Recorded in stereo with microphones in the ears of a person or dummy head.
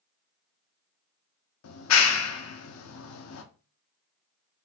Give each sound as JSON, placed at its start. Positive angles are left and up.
{"t": 1.6, "sound": "a clap", "side_deg": 75, "distance_m": 0.7}